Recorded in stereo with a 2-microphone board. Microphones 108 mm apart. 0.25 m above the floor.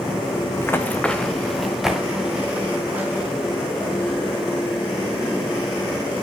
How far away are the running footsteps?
About 1.1 m.